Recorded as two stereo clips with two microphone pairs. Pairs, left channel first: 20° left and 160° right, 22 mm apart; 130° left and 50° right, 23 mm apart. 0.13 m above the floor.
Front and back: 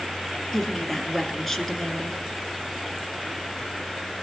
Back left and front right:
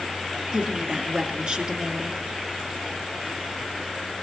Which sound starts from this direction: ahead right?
A woman speaking, at 0.5 s.